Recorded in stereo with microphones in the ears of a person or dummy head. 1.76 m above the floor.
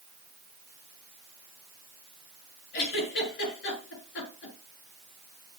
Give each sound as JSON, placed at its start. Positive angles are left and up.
{"t": 2.7, "sound": "a giggle", "side_deg": 70, "distance_m": 7.0}